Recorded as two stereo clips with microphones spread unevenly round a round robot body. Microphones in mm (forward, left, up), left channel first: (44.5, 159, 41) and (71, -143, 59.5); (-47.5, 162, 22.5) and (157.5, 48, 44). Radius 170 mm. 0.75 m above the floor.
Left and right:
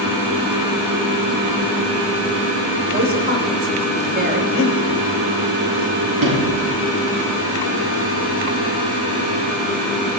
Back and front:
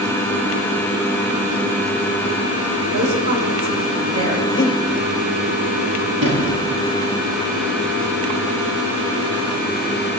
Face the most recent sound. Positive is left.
turn(degrees=-55)